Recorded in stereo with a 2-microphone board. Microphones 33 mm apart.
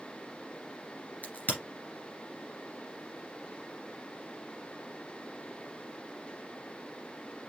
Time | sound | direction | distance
1.2 | a crack | 50° left (ahead or behind) | 2 m